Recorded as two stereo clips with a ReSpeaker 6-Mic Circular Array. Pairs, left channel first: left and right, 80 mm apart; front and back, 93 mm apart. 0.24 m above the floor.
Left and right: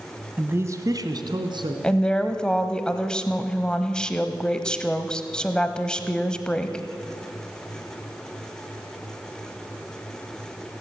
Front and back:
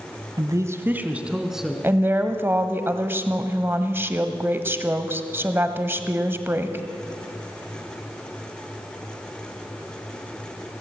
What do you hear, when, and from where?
0.4 s a man speaking: 150° right, 1.5 m; by 1.7 s 90° right, 2.5 m
1.8 s a woman speaking: 155° left, 1.2 m